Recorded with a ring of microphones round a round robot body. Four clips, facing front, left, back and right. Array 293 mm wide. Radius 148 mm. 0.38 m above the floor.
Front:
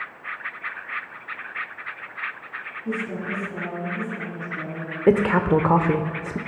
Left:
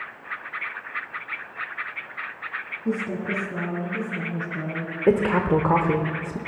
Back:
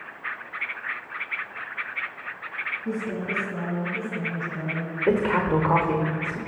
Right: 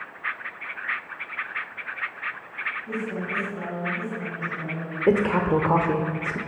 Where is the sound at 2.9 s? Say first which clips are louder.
Left 5 dB, front 1 dB; 95° left, 5 m; by 4.9 s 110° left, 5.5 m.